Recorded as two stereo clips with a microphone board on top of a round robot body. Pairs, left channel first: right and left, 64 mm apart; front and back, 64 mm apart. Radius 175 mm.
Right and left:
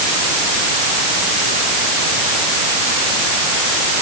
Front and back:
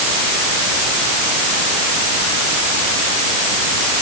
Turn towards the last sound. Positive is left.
No sound to turn to.